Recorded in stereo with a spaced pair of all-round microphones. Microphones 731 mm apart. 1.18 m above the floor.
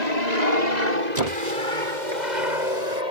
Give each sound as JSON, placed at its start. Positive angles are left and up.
{"t": 0.0, "sound": "an aircraft", "side_deg": -65}
{"t": 1.1, "sound": "a squeak", "side_deg": -60}